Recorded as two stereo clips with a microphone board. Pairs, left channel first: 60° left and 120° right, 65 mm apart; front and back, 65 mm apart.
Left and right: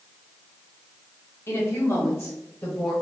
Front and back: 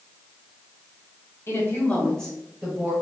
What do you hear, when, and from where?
1.5 s a woman speaking: 30° left, 1.9 m; by 2.9 s 125° left, 1.8 m